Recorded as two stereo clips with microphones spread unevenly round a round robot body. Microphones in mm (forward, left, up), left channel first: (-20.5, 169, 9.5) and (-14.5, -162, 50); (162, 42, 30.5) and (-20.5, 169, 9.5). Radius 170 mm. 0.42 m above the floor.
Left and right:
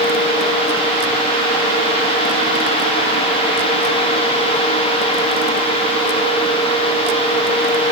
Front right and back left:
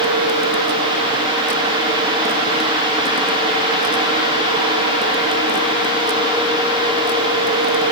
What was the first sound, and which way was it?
Only background noise.